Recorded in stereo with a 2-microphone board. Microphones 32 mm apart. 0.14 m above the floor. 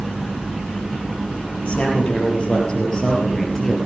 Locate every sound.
1.6 s a man speaking: 40° left (ahead or behind), 3.5 m; by 3.8 s 15° left (ahead or behind), 3 m